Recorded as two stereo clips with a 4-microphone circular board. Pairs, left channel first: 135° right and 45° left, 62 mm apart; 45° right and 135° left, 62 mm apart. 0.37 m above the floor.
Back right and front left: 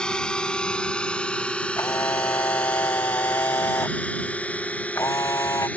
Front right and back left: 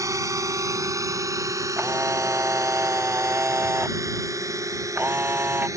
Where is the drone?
150° left; by 5.8 s 160° left.